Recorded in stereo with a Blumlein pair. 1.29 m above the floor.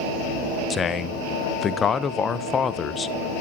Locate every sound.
0.7 s a man speaking: 20° left, 0.7 m